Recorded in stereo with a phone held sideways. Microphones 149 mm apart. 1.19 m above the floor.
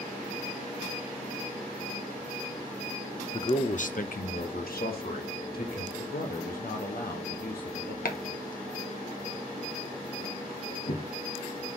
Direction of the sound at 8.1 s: 70° left (ahead or behind).